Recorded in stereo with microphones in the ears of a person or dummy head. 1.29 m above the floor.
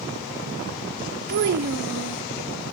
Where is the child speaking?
55° right (ahead or behind), 0.9 m.